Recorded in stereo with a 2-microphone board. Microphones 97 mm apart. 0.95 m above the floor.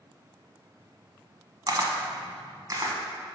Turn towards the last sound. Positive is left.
turn(degrees=-40)  # may be behind; listen again after turning